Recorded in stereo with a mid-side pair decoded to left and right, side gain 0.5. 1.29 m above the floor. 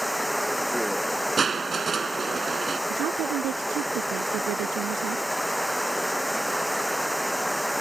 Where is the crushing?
35° right.